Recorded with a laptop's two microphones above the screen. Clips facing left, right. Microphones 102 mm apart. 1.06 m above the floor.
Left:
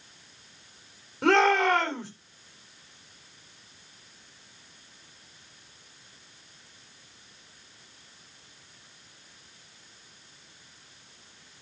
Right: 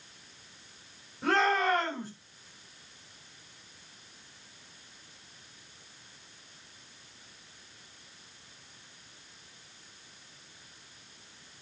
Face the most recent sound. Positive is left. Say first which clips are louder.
# left 5 dB
turn(degrees=80)